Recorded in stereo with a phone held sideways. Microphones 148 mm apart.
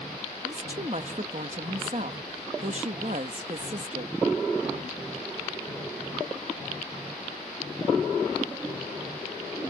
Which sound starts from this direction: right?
A woman speaking, at 0.4 s.